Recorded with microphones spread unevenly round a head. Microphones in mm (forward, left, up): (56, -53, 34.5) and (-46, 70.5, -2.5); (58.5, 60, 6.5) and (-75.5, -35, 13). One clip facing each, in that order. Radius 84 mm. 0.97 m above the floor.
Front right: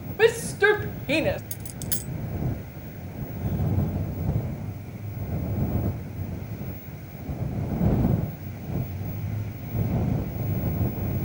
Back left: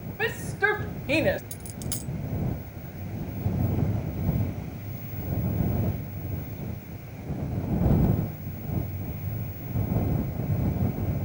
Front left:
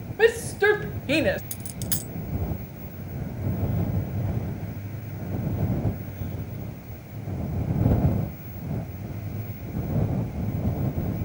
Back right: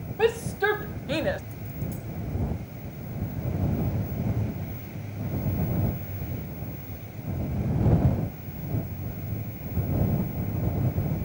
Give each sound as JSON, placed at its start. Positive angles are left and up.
{"t": 0.2, "sound": "a shout", "azimuth_deg": -30}
{"t": 1.5, "sound": "a dropped coin", "azimuth_deg": 30}